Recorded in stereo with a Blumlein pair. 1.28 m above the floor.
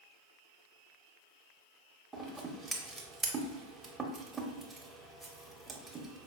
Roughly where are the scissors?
Ahead.